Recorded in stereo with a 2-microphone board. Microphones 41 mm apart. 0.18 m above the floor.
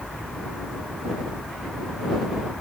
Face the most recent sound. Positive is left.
No sound to turn to.